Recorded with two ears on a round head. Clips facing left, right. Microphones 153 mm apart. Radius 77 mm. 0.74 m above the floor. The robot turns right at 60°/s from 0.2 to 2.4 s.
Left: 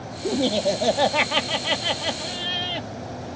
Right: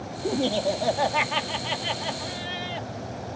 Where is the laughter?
5° left; by 2.9 s 135° left.